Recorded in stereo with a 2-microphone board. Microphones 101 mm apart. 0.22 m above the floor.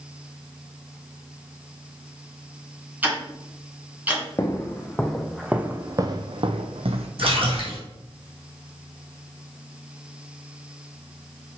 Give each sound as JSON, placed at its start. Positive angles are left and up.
{"t": 3.0, "sound": "ticking", "side_deg": -15, "distance_m": 2.5}
{"t": 4.4, "sound": "footsteps", "side_deg": 25, "distance_m": 1.1}
{"t": 7.2, "sound": "a splash", "side_deg": -65, "distance_m": 2.5}